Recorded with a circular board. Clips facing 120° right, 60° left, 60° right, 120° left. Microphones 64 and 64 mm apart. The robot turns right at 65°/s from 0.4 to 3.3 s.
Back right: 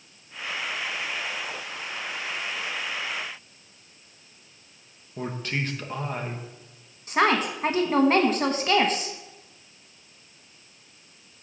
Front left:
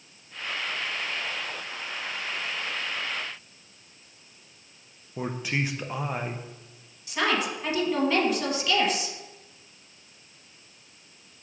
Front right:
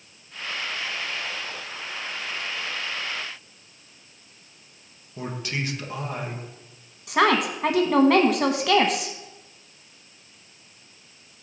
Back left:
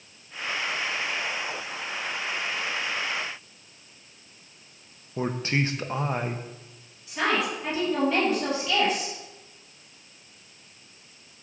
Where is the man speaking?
130° left, 0.8 m.